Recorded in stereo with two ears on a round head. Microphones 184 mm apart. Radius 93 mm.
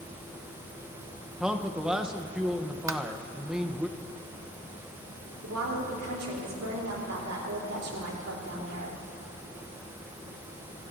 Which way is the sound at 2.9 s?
15° right (ahead or behind).